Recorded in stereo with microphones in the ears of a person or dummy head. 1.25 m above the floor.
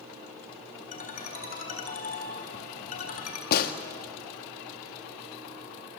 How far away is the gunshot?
About 1.6 m.